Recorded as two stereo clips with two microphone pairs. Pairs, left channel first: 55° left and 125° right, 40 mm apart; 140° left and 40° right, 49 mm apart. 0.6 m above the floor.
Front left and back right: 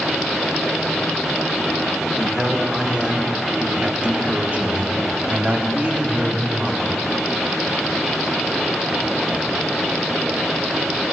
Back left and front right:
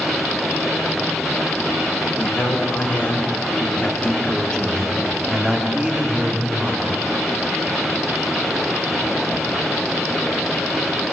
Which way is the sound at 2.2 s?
160° left.